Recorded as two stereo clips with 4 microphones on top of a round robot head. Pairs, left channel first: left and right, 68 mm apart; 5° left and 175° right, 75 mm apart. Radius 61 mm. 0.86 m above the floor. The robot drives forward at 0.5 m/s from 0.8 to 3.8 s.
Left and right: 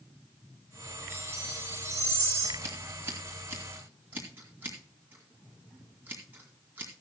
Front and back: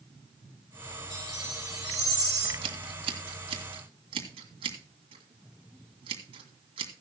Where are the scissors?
155° right, 1.6 m; by 6.9 s 160° right, 2 m.